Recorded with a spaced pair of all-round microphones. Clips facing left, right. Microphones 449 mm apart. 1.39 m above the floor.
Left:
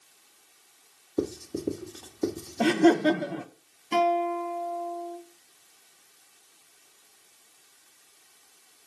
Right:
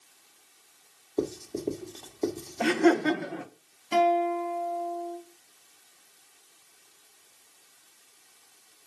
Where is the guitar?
10° left (ahead or behind), 2.5 m.